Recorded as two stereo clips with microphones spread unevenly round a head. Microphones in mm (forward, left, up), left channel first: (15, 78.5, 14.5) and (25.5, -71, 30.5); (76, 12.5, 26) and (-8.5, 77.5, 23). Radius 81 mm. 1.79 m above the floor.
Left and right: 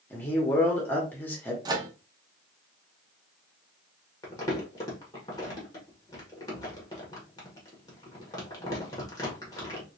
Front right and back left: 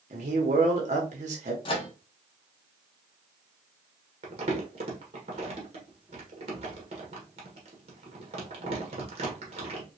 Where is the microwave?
35° right, 0.6 m.